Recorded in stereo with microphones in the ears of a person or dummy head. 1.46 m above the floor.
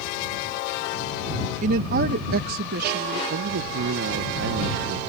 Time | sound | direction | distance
1.6 | a woman speaking | 50° right (ahead or behind) | ?
3.3 | a man speaking | 75° right (ahead or behind) | ?